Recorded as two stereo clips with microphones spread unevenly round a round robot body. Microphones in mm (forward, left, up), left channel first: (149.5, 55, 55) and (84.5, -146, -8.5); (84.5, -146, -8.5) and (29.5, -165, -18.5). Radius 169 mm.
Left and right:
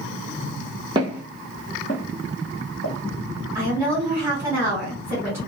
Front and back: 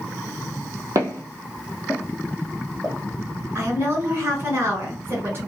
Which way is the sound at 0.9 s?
165° left.